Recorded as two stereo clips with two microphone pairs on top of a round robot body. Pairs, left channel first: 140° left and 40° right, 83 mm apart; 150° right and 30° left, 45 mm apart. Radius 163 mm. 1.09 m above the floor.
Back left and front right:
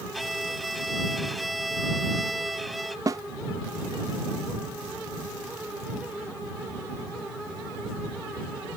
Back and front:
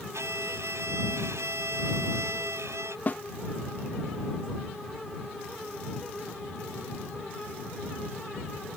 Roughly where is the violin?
Ahead left.